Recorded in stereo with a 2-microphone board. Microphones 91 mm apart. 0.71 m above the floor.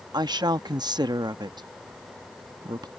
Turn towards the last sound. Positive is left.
turn(degrees=-50)  # may be behind; listen again after turning